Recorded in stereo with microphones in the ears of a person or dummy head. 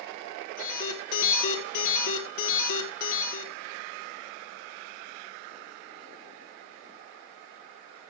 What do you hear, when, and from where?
0.6 s an alarm: 50° left (ahead or behind), 1.8 m